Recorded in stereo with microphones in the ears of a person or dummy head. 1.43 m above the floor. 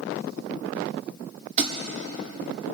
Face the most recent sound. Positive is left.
turn(degrees=-40)  # may be behind; listen again after turning